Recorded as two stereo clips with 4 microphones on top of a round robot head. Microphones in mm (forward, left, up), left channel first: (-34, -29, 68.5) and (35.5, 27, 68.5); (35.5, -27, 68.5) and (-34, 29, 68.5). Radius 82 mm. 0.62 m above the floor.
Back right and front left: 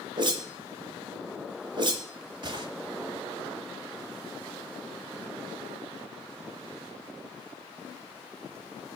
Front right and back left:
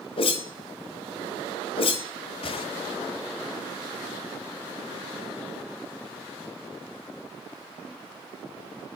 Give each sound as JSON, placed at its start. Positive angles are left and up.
{"t": 0.2, "sound": "a whoosh", "azimuth_deg": -5, "distance_m": 1.0}